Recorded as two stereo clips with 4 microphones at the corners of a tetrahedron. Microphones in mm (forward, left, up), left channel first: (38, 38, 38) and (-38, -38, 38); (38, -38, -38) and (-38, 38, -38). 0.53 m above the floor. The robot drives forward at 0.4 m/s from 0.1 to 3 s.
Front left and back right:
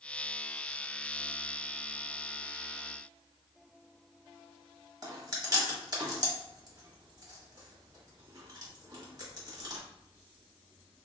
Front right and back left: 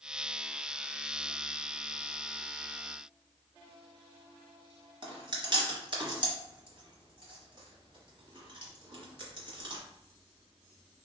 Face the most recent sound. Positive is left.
turn(degrees=175)